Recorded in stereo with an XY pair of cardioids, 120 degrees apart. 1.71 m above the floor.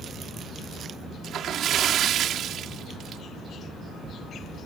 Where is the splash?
60° right.